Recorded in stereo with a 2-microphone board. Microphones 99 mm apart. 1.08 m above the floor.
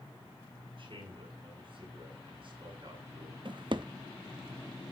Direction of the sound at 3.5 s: 50° right (ahead or behind).